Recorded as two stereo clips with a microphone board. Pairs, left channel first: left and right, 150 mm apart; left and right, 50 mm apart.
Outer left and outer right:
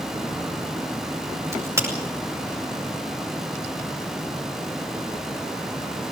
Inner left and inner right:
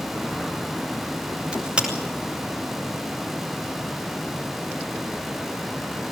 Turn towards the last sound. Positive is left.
turn(degrees=-20)  # may be behind; listen again after turning